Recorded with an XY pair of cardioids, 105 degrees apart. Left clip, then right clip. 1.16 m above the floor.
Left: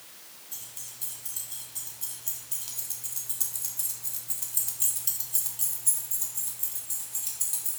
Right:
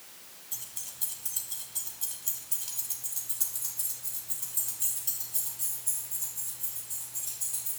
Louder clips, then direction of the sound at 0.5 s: Right 1 dB; 30° right.